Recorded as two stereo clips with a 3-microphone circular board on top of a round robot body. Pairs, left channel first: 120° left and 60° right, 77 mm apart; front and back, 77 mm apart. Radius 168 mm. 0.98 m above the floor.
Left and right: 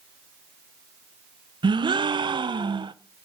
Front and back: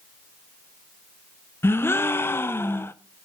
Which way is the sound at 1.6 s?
60° right.